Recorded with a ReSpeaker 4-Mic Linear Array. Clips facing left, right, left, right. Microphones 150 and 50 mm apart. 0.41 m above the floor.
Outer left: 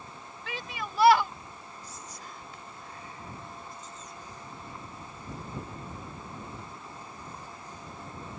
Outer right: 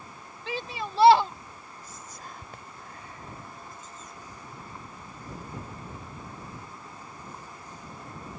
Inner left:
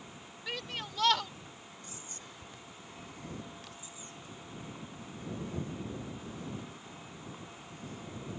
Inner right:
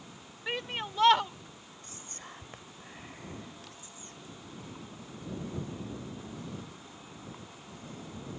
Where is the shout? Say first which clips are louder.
Outer right 5 dB, inner right 5 dB; 30° right (ahead or behind).